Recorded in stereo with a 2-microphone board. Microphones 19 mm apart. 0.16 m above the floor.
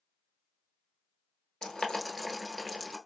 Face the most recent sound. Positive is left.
turn(degrees=40)  # may be behind; listen again after turning